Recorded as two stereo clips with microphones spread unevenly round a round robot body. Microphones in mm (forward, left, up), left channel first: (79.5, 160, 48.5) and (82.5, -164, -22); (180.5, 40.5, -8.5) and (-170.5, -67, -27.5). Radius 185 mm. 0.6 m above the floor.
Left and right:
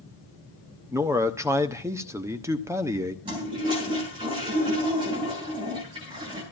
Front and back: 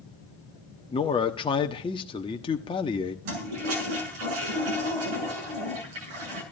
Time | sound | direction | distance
0.9 | a man speaking | 50° right | 1.0 m
3.2 | a toilet flushing | 165° right | 7 m